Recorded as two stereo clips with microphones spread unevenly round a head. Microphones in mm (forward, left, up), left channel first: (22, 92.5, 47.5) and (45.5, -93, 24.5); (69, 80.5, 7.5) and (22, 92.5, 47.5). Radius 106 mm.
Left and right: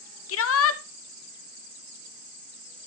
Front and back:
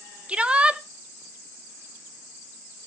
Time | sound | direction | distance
0.3 | a shout | 95° left | 1.6 m